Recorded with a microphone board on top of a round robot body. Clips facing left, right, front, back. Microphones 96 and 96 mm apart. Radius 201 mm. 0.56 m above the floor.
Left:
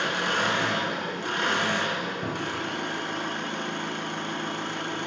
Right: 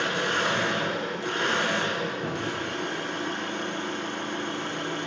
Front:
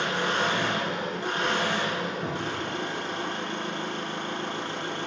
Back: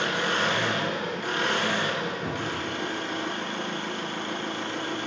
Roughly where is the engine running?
Ahead left.